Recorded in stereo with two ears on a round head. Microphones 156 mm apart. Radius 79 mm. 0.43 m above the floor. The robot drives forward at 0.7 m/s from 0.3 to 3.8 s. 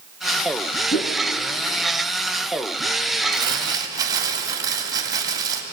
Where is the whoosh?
55° left (ahead or behind), 2.5 m; by 1.2 s 60° left (ahead or behind), 2.5 m.